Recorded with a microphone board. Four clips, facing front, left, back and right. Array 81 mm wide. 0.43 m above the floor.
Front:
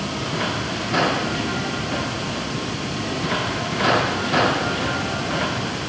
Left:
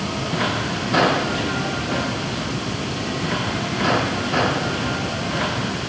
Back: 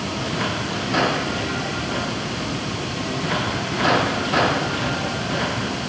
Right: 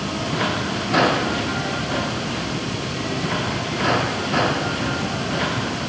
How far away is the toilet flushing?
No toilet flushing in this recording.